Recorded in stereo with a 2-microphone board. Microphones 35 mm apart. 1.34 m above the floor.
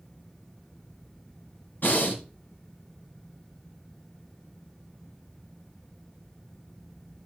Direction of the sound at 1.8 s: 60° left (ahead or behind).